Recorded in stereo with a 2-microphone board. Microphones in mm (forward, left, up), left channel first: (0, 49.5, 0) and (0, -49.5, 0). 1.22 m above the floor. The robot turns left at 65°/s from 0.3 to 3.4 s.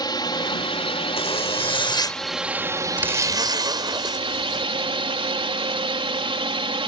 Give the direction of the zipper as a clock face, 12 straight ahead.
9 o'clock.